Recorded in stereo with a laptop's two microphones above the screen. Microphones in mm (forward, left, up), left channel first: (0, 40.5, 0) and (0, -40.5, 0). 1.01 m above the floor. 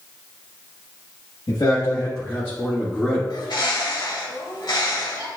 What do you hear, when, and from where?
1.5 s a man speaking: 65° left (ahead or behind), 1.3 m; by 3.2 s 5° right (ahead or behind), 2 m
3.3 s a bird: 55° left (ahead or behind), 1.2 m